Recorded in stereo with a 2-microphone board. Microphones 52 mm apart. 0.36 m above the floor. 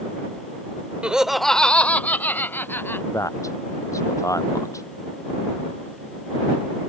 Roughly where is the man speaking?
Left.